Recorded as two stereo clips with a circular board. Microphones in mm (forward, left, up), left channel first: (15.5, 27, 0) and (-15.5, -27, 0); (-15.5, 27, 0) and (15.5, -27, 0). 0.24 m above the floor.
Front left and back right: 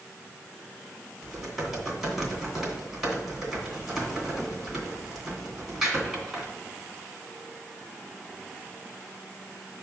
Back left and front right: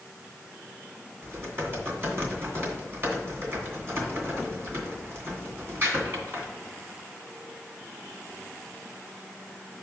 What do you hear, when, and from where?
1.2 s typing on a keyboard: 30° right, 2 m